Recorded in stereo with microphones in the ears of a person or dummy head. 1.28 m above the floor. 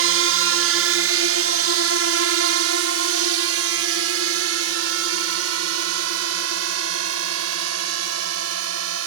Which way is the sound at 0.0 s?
65° right (ahead or behind).